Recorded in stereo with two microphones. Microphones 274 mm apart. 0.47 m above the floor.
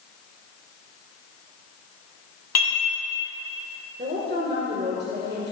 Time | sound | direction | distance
2.5 | dishes clattering | 75° left (ahead or behind) | 2.5 m
4.0 | a woman speaking | 40° right (ahead or behind) | 1.6 m